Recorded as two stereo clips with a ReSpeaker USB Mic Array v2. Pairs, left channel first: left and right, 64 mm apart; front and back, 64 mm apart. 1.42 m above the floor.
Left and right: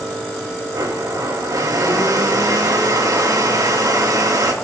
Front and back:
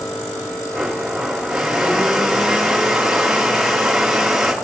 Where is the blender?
95° right, 3 m.